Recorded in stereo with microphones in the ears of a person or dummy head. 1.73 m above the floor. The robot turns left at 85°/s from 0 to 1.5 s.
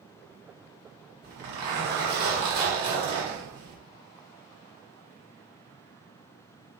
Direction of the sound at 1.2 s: 55° right (ahead or behind).